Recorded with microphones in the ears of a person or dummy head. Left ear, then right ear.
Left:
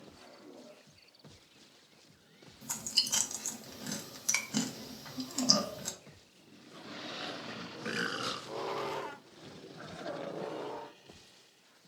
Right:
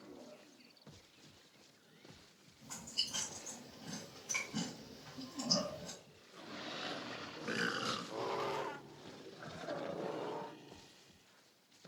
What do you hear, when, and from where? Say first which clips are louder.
2.6 s chewing: left 8 dB; 75° left (ahead or behind), 0.6 m